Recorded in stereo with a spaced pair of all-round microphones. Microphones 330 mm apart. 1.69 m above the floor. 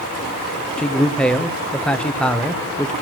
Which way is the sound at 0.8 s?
5° left (ahead or behind).